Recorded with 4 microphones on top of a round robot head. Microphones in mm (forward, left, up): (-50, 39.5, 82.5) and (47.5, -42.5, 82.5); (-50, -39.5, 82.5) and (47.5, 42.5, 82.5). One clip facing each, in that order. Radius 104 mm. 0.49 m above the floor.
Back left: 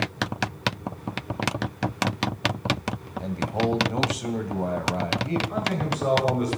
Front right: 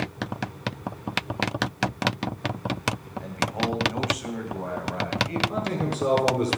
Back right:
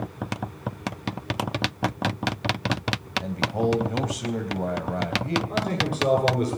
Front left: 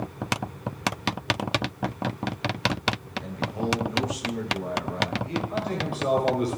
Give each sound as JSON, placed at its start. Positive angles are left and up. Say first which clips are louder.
{"t": 3.2, "sound": "a man speaking", "louder": "back left 3 dB, back right 5 dB", "azimuth_deg": -160, "distance_m": 3.0}
{"t": 5.5, "sound": "a man speaking", "louder": "even, back right 2 dB", "azimuth_deg": -100, "distance_m": 8.0}